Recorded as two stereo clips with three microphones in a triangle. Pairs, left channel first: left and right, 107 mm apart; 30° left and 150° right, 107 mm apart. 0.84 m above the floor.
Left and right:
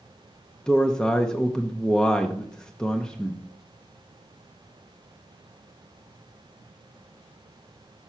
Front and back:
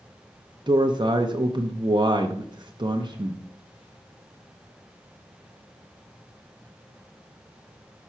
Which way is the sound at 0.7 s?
170° left.